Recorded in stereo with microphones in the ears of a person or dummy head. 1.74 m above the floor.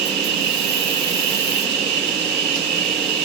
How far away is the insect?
About 1.2 m.